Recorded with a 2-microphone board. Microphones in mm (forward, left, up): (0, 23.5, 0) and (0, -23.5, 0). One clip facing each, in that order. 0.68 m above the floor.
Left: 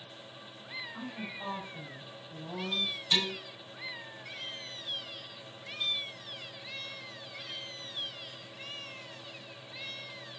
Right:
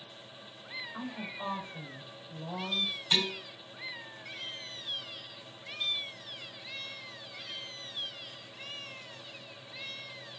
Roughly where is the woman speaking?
Right.